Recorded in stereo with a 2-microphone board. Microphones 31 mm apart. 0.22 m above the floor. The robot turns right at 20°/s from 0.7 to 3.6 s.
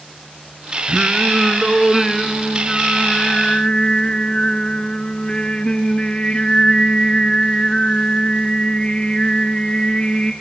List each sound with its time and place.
0.9 s singing: 25° right, 1.1 m; by 10.3 s 30° left, 1.1 m